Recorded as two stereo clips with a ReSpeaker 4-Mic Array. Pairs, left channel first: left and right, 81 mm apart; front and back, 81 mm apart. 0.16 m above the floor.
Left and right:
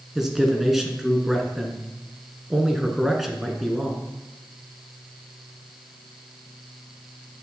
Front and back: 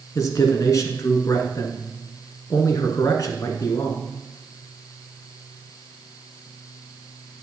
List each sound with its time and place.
0.1 s a man speaking: 5° right, 1.5 m